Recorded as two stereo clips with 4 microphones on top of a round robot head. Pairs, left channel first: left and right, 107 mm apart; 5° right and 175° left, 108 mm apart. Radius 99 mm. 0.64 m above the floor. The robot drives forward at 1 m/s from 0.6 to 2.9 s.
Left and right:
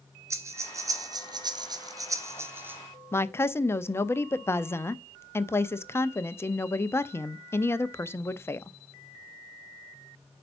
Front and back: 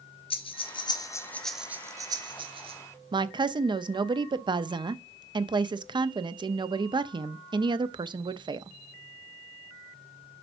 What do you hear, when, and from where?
0.3 s breathing: 30° right, 1.2 m; by 2.8 s 160° right, 1.5 m
3.1 s a woman speaking: 150° left, 0.8 m